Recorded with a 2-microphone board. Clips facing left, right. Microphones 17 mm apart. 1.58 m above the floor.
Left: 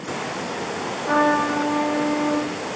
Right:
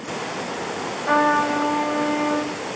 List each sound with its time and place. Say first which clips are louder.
1.1 s a trumpet: right 1 dB; 45° right (ahead or behind), 2 m